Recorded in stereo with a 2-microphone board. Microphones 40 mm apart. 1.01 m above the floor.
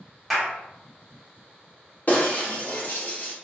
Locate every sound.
0.3 s a clap: centre (ahead or behind), 1.0 m
2.1 s breaking glass: 40° left (ahead or behind), 0.7 m